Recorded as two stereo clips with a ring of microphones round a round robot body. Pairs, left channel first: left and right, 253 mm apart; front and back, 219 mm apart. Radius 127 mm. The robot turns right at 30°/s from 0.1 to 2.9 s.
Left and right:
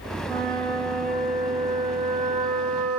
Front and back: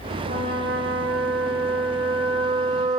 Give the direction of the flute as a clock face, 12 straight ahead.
6 o'clock.